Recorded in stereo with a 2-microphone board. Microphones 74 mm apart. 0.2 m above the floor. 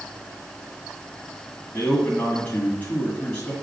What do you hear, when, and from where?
1.7 s a man speaking: 20° left (ahead or behind), 1.7 m